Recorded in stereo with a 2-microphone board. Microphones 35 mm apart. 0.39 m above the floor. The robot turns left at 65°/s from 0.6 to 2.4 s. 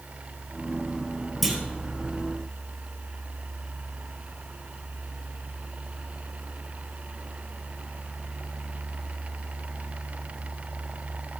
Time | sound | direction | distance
1.4 | a clunk | centre (ahead or behind) | 3 m